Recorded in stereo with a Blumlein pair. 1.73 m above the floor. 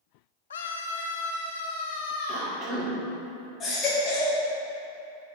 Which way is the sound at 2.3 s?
30° right.